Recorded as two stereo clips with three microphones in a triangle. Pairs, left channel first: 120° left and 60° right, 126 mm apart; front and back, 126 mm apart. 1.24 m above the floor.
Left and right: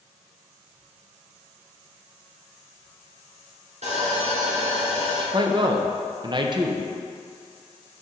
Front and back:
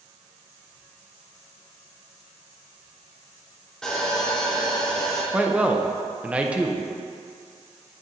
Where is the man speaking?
100° right, 0.7 m.